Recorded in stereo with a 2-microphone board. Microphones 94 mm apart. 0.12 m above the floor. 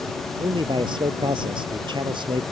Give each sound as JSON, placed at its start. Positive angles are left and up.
{"t": 0.4, "sound": "a man speaking", "side_deg": -60}